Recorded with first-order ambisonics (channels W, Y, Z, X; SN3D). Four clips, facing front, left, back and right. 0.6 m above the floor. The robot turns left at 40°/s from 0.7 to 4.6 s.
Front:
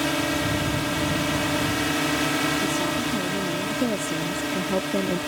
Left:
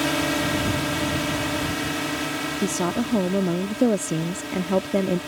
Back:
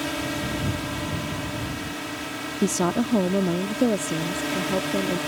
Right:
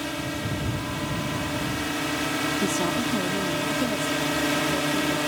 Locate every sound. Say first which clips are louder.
0.0 s a drone: left 7 dB, front 4 dB; 60° left; by 5.3 s 95° right
2.6 s a woman speaking: even, back 1 dB; 165° left; by 5.2 s 85° left